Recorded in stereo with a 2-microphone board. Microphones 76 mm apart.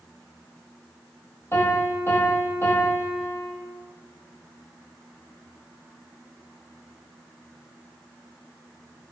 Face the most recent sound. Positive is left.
turn(degrees=35)  # may be behind; listen again after turning